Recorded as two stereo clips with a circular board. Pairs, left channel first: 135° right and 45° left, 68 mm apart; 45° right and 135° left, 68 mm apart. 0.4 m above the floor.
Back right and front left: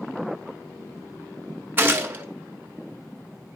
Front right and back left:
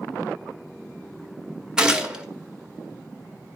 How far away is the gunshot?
About 1.4 m.